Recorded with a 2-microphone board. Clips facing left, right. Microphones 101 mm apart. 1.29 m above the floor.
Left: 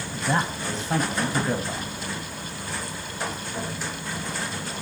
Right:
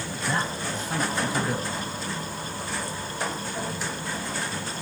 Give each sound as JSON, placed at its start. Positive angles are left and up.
{"t": 0.1, "sound": "a man speaking", "side_deg": 25, "distance_m": 1.4}